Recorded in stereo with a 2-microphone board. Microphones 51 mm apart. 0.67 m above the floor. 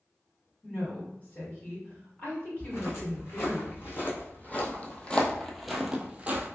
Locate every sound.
0.6 s a woman speaking: 30° left (ahead or behind), 1.9 m
2.6 s footsteps: 50° left (ahead or behind), 1.9 m; by 6.5 s 35° right (ahead or behind), 0.8 m